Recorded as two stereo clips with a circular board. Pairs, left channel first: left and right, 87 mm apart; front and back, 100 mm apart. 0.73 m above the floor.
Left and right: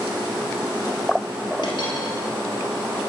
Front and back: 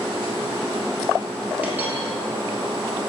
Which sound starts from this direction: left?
A dropped coin, at 1.6 s.